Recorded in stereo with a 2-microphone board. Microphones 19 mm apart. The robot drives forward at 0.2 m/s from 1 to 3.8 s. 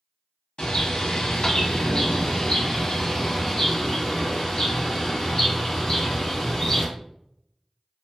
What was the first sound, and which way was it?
A bird, 70° left (ahead or behind).